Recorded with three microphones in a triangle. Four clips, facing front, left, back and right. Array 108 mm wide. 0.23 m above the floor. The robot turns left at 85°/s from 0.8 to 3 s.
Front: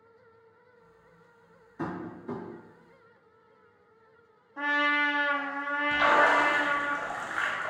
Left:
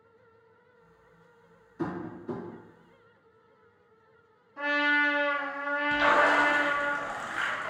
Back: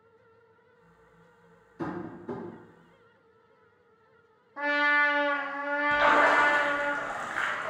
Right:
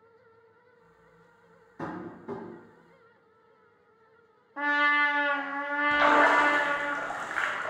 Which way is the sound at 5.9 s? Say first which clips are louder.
Right 2 dB, even; 95° right.